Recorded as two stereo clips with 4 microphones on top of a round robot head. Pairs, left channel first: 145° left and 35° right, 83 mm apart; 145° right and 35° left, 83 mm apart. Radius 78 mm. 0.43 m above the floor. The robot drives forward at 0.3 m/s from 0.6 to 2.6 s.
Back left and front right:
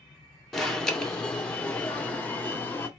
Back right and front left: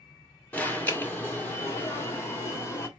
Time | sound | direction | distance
0.5 | an alarm | 135° right | 1.6 m